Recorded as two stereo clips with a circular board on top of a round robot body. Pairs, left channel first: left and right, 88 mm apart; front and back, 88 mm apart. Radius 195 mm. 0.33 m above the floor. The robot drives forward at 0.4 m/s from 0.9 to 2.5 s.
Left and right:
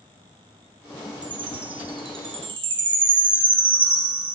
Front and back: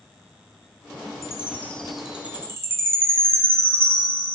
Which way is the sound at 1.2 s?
60° right.